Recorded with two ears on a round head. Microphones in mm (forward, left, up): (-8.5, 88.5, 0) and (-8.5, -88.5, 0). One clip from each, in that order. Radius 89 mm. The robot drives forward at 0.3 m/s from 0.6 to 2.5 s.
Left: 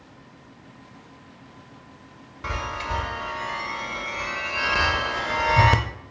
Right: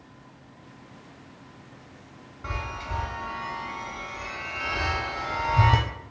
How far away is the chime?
About 0.5 m.